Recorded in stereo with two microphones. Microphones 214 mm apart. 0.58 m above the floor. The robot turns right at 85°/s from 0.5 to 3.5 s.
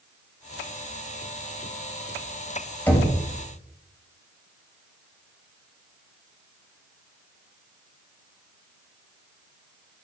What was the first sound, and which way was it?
Knocking, 10° left (ahead or behind).